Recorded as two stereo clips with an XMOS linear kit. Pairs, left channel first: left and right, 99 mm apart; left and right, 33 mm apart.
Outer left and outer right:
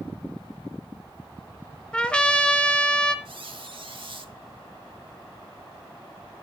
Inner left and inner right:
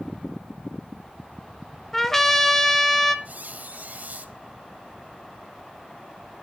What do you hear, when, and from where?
1.9 s a trumpet: 10° left (ahead or behind), 1.0 m
3.2 s a squeak: 60° right (ahead or behind), 0.9 m